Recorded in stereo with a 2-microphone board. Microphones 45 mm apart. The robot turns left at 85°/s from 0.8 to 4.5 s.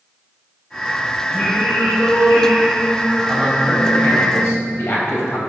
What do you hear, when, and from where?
1.3 s singing: 10° left, 3.5 m; by 4.3 s 115° left, 3.5 m
3.3 s a man speaking: 170° right, 3 m; by 5.4 s 90° left, 3 m